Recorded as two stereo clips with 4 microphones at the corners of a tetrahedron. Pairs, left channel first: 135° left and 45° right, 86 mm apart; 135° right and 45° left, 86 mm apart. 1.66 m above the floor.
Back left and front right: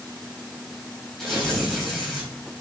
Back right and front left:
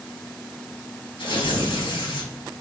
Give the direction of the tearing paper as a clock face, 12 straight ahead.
5 o'clock.